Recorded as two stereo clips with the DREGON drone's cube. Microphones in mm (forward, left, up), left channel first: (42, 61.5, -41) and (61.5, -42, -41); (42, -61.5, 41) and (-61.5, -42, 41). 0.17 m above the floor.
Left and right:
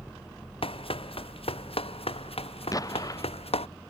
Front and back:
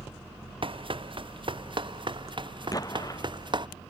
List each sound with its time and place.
0.6 s running footsteps: 130° left; by 3.7 s 125° left
2.7 s an explosion: 45° left